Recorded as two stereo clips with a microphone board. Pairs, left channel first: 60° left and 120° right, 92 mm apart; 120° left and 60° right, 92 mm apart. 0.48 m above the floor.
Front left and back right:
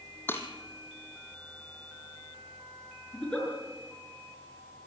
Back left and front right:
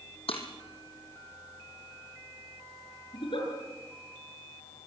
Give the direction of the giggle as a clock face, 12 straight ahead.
7 o'clock.